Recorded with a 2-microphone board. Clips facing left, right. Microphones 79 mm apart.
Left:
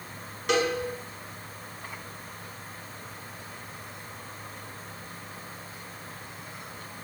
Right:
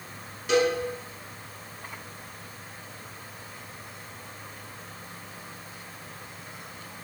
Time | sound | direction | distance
0.5 | a cowbell | 70° left (ahead or behind) | 1.1 m